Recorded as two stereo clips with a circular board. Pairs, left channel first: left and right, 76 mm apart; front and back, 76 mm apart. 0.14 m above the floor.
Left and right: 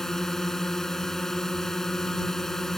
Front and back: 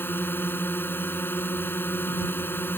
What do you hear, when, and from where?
0.0 s a drone: 10° left